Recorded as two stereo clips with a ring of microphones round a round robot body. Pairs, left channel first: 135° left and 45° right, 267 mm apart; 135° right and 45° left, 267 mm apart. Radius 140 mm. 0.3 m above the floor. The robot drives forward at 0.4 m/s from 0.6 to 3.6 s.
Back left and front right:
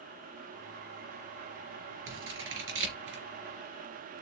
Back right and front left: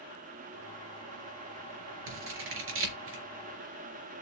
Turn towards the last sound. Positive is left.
turn(degrees=0)